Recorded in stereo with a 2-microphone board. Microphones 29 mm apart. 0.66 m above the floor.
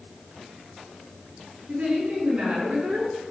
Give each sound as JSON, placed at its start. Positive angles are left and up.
{"t": 1.7, "sound": "a woman speaking", "side_deg": -50, "distance_m": 6.0}